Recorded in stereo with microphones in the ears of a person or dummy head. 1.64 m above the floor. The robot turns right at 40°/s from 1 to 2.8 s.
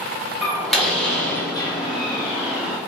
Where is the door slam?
5° left, 0.9 m; by 2.8 s 75° left, 0.9 m.